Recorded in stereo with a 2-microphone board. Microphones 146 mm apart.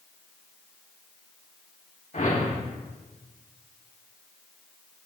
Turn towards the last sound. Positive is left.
turn(degrees=70)  # may be behind; listen again after turning